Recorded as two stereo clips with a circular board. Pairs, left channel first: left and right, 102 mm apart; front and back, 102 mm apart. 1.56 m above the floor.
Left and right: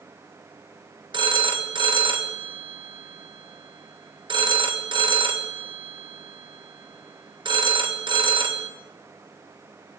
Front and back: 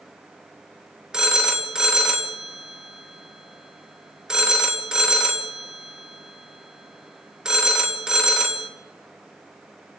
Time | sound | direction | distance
1.1 | a phone ringing | 100° right | 1.2 m